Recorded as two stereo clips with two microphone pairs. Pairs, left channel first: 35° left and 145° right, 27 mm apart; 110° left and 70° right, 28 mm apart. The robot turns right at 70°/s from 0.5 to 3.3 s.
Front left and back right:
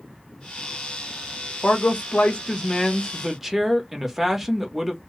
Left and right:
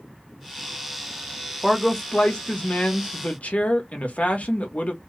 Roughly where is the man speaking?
Ahead.